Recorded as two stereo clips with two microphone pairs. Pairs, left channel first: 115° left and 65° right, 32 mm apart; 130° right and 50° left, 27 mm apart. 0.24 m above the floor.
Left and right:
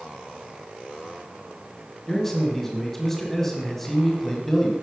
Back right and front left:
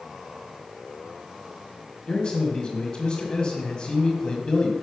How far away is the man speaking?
About 1.6 m.